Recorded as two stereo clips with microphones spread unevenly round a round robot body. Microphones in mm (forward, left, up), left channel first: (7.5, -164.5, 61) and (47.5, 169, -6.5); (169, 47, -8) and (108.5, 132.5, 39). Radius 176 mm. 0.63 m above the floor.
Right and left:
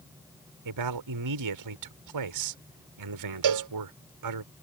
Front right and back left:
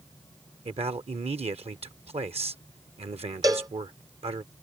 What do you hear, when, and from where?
0.7 s a man speaking: 95° left
3.4 s a cowbell: 60° left